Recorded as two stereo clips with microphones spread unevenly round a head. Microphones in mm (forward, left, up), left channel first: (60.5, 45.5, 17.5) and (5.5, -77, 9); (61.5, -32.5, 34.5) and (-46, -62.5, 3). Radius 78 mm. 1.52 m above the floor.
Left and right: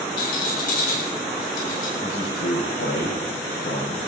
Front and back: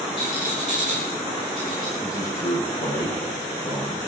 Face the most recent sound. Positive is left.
turn(degrees=80)